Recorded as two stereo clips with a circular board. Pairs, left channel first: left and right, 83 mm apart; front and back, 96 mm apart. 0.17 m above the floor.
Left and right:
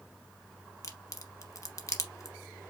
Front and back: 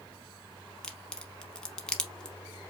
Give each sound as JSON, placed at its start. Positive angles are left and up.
{"t": 0.8, "sound": "a crack", "azimuth_deg": 80, "distance_m": 0.7}